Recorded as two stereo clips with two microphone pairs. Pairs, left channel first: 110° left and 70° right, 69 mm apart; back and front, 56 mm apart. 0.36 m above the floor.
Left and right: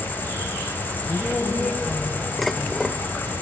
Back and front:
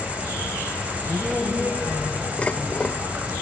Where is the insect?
60° left, 2.5 m.